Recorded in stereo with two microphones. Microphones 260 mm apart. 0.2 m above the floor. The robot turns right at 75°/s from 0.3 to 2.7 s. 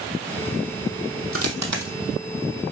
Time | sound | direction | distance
1.3 | a dropped coin | 55° right (ahead or behind) | 1.6 m